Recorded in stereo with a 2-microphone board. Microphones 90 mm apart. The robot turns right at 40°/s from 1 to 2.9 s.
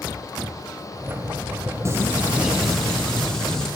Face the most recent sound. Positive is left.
turn(degrees=10)